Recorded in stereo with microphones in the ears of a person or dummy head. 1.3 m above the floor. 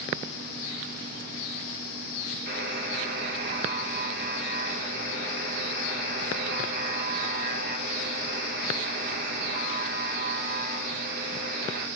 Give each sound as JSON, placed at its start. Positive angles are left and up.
{"t": 2.5, "sound": "a buzzer", "side_deg": -55, "distance_m": 1.4}